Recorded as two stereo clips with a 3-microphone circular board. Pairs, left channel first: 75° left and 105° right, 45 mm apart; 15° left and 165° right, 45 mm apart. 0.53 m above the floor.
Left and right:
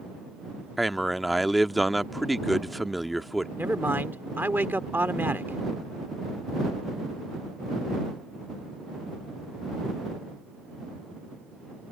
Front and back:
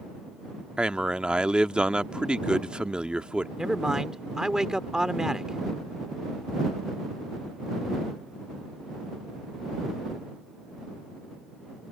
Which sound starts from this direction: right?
A man speaking, at 3.6 s.